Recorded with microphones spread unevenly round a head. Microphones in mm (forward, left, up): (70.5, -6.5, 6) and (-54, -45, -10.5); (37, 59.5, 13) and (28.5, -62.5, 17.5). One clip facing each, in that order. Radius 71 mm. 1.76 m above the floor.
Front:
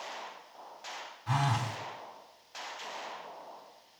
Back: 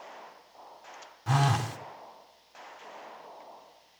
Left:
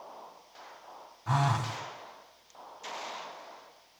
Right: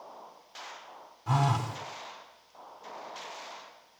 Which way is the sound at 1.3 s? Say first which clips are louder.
Back 4 dB, right 1 dB; 170° right.